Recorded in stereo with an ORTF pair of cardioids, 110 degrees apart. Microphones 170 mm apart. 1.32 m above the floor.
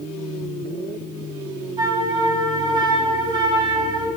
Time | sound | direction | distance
1.8 | a flute | 25° right | 1.2 m